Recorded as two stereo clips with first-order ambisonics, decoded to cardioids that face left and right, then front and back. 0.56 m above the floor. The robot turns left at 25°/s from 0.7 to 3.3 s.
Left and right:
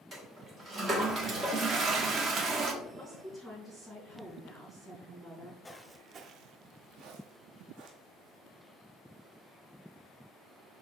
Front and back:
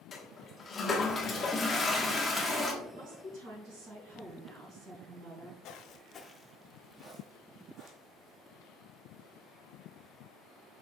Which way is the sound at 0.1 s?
40° right.